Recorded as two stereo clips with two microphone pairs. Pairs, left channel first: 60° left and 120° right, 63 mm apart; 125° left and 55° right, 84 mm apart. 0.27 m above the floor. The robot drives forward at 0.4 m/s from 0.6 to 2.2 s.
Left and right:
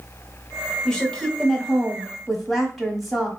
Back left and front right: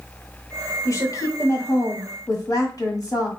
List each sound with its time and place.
0.8 s a woman speaking: 125° left, 1.4 m; by 3.3 s 145° left, 1.7 m